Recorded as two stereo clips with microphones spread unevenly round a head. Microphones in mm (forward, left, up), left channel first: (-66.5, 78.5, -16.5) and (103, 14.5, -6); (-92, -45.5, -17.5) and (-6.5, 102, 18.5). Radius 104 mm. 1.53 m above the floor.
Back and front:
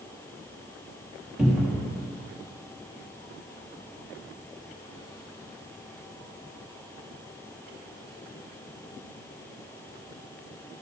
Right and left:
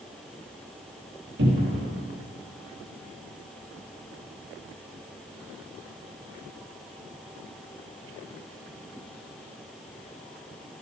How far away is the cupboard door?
About 2 m.